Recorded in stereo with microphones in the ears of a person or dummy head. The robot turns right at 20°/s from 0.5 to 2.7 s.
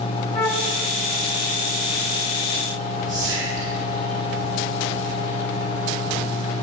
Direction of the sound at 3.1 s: 25° right (ahead or behind).